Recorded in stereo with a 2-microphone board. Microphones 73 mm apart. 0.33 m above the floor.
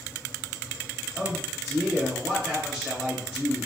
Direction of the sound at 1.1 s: 10° right (ahead or behind).